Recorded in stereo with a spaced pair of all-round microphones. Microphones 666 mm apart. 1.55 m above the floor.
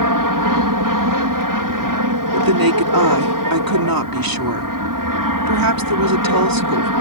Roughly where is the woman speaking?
Right.